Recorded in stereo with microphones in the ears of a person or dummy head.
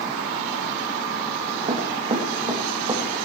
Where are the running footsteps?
40° right (ahead or behind), 3.5 m; by 3.0 s 25° right (ahead or behind), 3 m.